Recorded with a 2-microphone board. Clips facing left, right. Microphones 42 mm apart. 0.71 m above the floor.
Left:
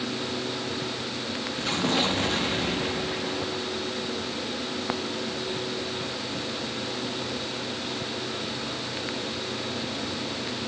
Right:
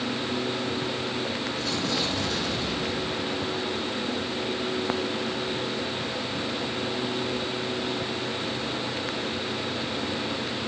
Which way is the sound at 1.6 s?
45° left (ahead or behind).